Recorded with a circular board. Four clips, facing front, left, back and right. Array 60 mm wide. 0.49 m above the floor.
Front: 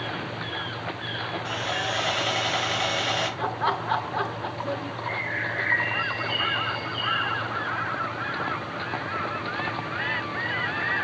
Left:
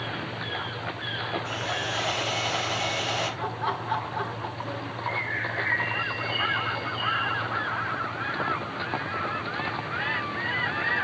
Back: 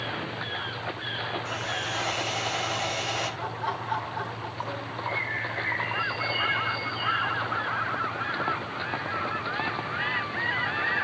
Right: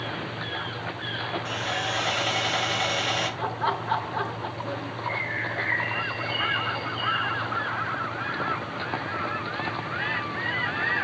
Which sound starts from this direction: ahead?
A bird, at 5.0 s.